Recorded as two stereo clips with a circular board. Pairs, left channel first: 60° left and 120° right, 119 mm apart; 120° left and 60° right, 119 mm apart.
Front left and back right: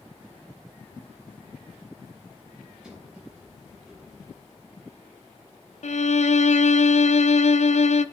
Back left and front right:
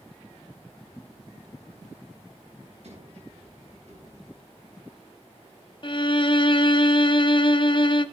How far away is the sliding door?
About 7 m.